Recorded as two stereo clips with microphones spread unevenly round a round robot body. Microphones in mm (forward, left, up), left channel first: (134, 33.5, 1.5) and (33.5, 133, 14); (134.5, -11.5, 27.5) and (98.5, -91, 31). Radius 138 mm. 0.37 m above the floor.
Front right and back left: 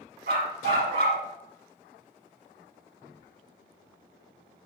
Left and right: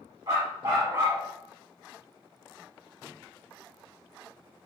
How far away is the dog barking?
About 1.2 m.